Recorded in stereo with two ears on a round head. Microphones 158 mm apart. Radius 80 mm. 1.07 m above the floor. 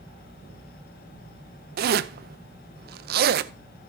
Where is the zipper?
60° right (ahead or behind), 0.5 m.